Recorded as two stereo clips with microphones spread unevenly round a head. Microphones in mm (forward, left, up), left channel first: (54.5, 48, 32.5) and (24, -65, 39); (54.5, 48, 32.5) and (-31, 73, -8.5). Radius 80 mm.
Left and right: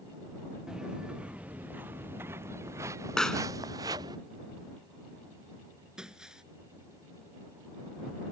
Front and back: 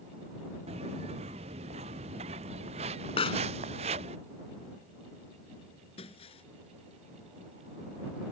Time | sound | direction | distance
0.7 | footsteps | 170° left | ?
3.2 | a pop | 10° right | ?
6.0 | breaking glass | 20° right | ?